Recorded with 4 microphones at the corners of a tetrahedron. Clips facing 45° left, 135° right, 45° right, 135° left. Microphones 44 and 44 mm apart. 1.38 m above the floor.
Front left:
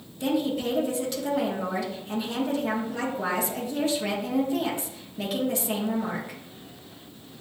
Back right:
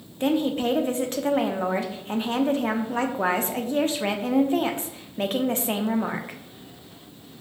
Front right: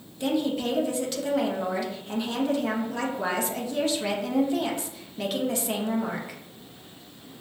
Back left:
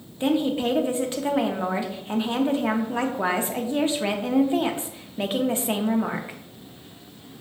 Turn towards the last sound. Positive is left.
turn(degrees=-170)